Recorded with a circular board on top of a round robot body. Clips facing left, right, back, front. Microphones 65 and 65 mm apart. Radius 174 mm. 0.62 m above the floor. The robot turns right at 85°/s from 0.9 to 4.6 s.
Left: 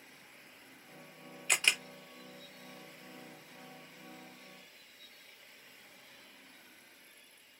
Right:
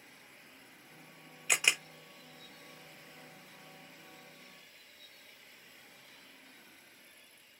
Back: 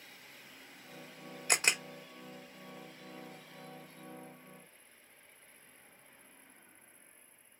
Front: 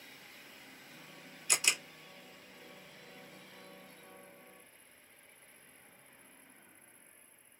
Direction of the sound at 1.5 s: 175° right.